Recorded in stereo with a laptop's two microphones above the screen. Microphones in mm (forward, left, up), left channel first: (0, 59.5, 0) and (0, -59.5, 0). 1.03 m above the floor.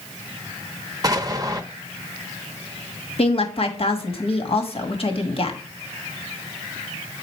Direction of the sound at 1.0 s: 30° right (ahead or behind).